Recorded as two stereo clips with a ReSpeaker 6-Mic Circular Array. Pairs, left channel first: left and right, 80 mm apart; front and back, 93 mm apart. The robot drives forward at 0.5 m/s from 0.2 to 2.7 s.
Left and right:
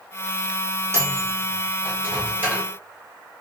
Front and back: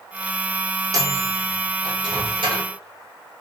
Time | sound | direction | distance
0.9 | a microwave | 140° right | 1.0 m